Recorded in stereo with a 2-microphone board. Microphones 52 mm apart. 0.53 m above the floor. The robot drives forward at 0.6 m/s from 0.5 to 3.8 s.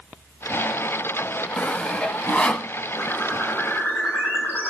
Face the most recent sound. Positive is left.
turn(degrees=35)  # may be behind; listen again after turning